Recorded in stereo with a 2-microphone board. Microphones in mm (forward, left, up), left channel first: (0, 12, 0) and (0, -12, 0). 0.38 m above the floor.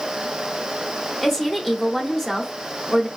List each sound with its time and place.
1.2 s a woman speaking: 10° left (ahead or behind), 0.8 m